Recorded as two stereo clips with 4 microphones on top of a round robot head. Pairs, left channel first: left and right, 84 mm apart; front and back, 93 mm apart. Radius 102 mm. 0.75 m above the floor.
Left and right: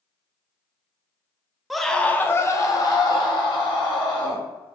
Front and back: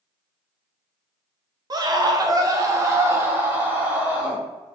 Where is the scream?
Straight behind, 0.7 m; by 4.4 s 105° left, 1.7 m.